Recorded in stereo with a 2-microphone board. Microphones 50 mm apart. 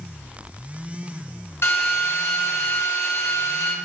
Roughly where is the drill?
Left.